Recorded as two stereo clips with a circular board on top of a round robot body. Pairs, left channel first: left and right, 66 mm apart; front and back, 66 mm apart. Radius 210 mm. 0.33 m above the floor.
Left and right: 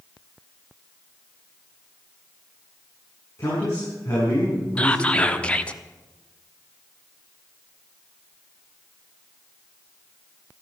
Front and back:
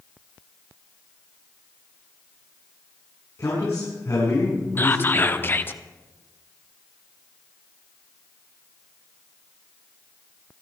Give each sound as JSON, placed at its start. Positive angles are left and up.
{"t": 3.4, "sound": "a man speaking", "azimuth_deg": 45, "distance_m": 6.5}
{"t": 4.8, "sound": "whispering", "azimuth_deg": 30, "distance_m": 1.4}